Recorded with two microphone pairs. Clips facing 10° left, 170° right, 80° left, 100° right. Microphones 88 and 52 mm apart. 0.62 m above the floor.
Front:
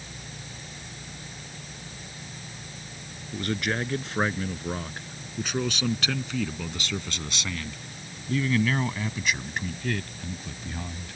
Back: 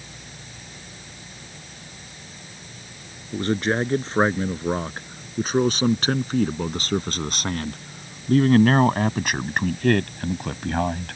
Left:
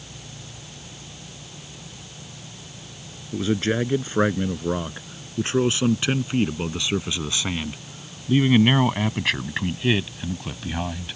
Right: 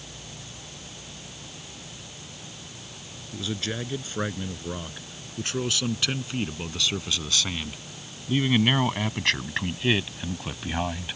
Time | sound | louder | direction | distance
3.3 | a man speaking | back 6 dB, left 9 dB | 130° left | ?